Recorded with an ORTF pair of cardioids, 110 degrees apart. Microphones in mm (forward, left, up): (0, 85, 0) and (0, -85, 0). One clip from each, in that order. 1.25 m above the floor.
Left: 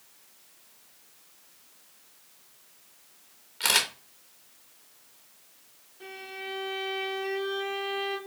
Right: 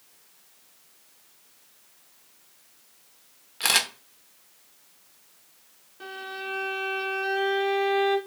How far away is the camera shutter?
About 1.0 m.